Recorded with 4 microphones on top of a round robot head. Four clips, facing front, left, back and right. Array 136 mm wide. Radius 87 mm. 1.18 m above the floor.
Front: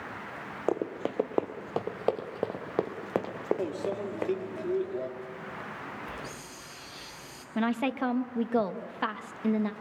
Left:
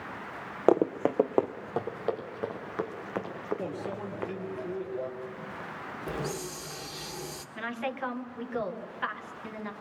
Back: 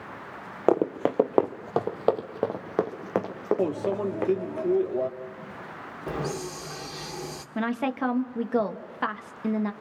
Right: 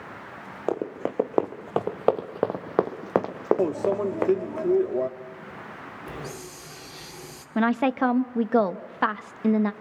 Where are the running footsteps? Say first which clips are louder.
Left 5 dB, back 8 dB; 145° left, 1.3 m; by 4.6 s 95° right, 3.5 m.